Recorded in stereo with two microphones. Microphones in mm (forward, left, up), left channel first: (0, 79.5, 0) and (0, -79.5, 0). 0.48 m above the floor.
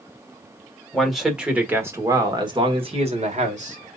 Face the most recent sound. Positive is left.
turn(degrees=-55)  # may be behind; listen again after turning